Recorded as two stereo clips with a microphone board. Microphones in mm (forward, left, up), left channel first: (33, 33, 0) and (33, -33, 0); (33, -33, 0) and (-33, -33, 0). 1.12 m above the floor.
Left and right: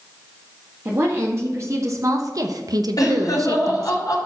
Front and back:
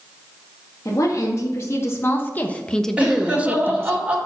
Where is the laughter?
110° left, 3 m.